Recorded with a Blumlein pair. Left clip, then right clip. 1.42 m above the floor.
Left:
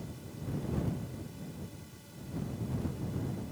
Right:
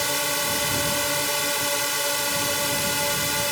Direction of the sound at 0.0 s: 45° right.